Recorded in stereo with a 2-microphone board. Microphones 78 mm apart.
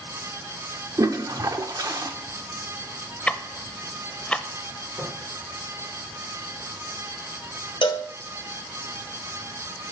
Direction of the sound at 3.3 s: 15° left (ahead or behind).